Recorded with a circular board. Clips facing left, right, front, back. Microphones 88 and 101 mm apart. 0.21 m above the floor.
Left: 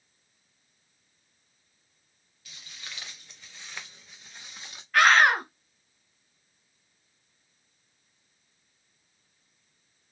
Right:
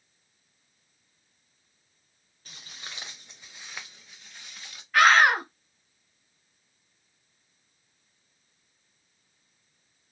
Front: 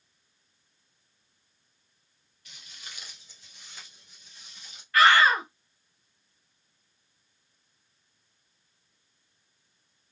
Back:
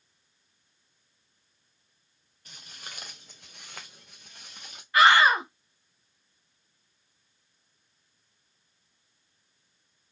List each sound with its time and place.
2.5 s footsteps: 135° right, 1.4 m; by 4.8 s 160° left, 1.5 m
4.9 s a scream: 175° right, 1.0 m